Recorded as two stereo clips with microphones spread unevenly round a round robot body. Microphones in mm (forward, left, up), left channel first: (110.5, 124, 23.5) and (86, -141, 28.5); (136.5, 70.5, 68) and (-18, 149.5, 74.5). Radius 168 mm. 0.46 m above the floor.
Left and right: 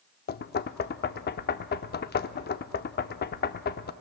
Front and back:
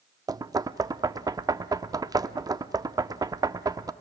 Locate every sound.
0.3 s knocking: 90° left, 0.6 m